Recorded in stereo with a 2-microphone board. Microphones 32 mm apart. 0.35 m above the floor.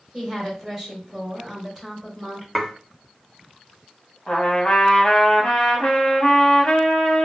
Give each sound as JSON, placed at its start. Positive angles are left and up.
{"t": 0.1, "sound": "a woman speaking", "side_deg": -5, "distance_m": 1.5}
{"t": 2.5, "sound": "dishes clattering", "side_deg": 5, "distance_m": 0.6}
{"t": 4.3, "sound": "a trumpet", "side_deg": 35, "distance_m": 0.7}